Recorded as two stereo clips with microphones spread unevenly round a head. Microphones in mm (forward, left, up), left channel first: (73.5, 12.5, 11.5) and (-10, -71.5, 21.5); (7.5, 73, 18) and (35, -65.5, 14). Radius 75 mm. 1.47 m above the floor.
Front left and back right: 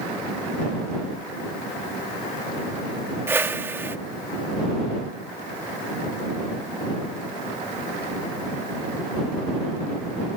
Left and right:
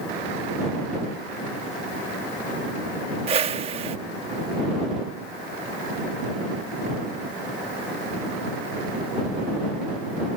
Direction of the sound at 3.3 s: 85° right.